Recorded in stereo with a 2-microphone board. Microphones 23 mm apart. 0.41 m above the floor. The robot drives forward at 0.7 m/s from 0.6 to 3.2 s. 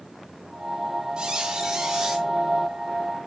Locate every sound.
1.2 s a squeak: 40° right (ahead or behind), 0.8 m; by 2.3 s 20° right (ahead or behind), 1.4 m